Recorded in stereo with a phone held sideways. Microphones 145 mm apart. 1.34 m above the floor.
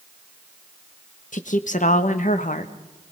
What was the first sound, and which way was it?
A woman speaking, 55° left (ahead or behind).